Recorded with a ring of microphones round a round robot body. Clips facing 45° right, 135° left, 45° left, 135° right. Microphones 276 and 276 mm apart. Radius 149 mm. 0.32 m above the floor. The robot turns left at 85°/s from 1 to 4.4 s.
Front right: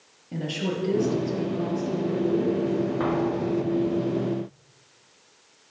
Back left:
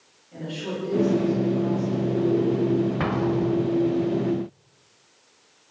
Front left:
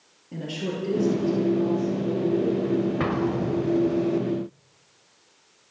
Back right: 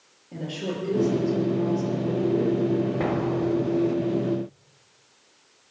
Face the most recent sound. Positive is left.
turn(degrees=-10)